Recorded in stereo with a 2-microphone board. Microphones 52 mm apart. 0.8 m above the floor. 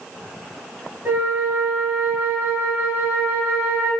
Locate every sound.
1.1 s a flute: 40° right (ahead or behind), 1.3 m